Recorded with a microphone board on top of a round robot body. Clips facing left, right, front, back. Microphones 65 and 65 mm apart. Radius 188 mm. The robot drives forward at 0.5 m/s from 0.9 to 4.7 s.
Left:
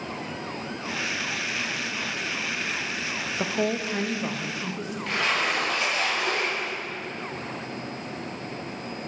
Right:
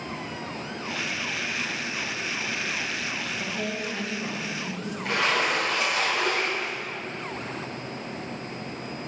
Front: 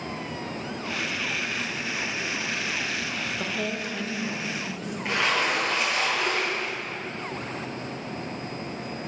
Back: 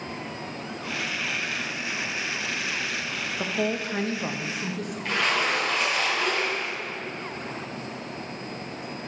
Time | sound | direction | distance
3.4 | a woman speaking | 105° left | 0.6 m
5.0 | a splash | 70° right | 1.7 m